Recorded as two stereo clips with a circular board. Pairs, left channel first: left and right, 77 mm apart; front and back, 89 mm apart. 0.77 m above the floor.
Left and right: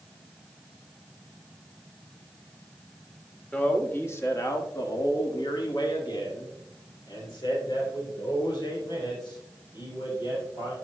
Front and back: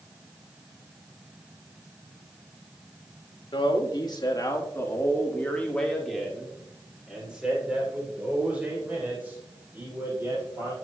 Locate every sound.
3.5 s a man speaking: 20° left, 1.5 m; by 10.8 s 115° left, 5 m